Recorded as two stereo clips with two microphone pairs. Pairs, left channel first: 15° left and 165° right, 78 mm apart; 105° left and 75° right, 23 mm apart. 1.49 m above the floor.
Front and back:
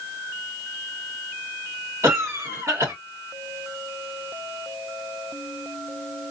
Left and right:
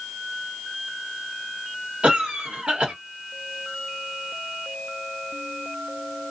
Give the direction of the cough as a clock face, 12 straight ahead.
4 o'clock.